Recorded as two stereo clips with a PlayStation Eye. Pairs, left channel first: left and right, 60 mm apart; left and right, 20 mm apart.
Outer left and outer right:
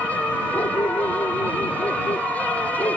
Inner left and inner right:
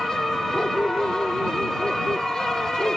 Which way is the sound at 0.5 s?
75° left (ahead or behind).